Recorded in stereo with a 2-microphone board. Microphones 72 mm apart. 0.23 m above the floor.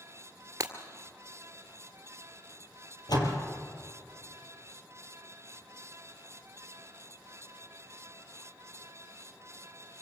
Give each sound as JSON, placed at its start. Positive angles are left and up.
{"t": 0.6, "sound": "breaking glass", "side_deg": -45, "distance_m": 2.0}
{"t": 3.1, "sound": "a door slam", "side_deg": 65, "distance_m": 4.5}